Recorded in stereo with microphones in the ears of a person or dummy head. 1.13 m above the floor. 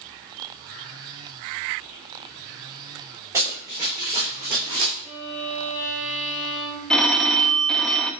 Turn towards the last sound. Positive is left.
turn(degrees=5)  # may be behind; listen again after turning